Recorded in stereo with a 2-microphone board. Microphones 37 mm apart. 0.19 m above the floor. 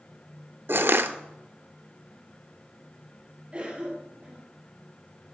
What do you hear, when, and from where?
0.7 s crushing: 70° right (ahead or behind), 1.0 m
3.5 s a cough: 25° right (ahead or behind), 4.5 m